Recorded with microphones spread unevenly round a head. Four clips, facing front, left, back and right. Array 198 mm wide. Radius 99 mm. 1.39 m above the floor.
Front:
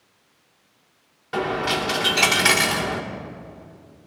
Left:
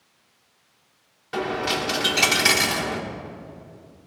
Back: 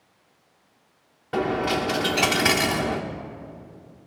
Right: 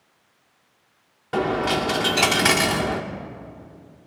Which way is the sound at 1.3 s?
105° right.